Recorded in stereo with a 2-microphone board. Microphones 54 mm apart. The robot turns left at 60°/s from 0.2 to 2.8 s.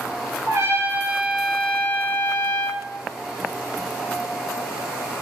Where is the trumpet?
125° right, 0.8 m; by 2.9 s 95° left, 0.8 m.